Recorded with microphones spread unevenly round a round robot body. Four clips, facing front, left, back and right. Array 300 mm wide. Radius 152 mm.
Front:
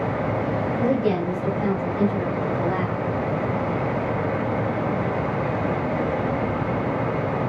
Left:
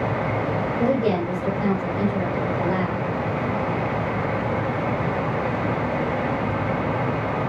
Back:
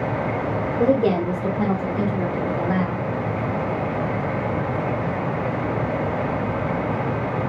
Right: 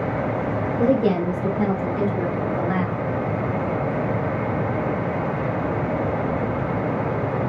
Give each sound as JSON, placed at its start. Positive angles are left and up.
{"t": 0.8, "sound": "a woman speaking", "azimuth_deg": -165, "distance_m": 1.8}